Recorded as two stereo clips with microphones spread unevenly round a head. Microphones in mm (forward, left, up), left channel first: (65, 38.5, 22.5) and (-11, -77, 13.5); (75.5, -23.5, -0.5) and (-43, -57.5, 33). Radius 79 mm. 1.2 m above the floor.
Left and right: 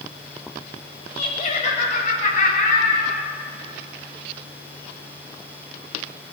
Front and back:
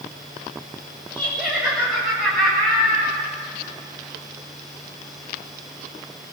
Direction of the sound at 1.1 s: 115° left.